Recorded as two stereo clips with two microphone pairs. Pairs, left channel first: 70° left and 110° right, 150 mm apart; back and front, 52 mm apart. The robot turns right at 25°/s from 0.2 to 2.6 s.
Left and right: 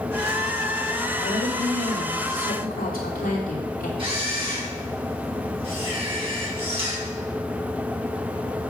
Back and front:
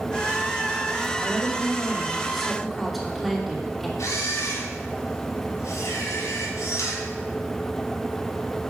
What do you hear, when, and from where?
1.2 s a woman speaking: 55° left, 2.5 m; by 3.9 s 90° left, 2.5 m
4.0 s a camera shutter: 165° right, 5 m